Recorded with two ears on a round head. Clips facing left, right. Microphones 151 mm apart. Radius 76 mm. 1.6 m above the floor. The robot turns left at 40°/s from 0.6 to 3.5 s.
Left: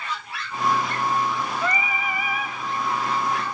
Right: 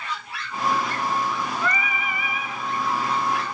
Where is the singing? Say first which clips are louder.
Left 1 dB; 165° left, 0.7 m; by 2.6 s 125° left, 0.7 m.